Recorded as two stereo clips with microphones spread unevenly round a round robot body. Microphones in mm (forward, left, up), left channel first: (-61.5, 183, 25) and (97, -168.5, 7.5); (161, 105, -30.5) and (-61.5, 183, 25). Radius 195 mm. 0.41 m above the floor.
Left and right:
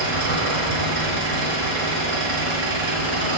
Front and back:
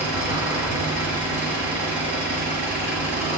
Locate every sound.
0.0 s an engine running: 50° right, 4.5 m